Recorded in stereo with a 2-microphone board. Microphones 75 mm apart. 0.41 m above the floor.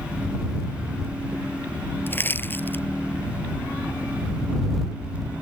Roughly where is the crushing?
Left.